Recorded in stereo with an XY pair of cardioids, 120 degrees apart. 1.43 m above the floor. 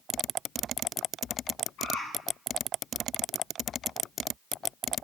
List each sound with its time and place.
1.8 s a bird: 70° left, 5.5 m